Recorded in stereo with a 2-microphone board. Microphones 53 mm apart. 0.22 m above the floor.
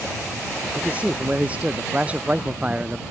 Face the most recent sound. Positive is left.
turn(degrees=-20)  # may be behind; listen again after turning